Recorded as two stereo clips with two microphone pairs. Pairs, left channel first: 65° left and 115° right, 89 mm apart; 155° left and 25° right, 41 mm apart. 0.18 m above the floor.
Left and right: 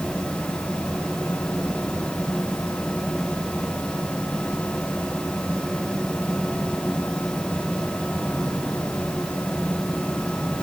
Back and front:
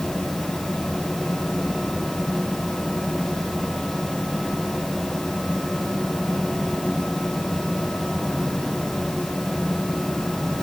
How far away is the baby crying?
No baby crying in this recording.